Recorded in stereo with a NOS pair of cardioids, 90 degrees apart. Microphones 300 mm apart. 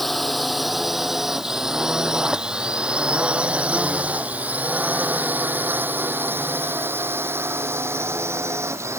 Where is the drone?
Straight ahead; by 9.0 s 10° right.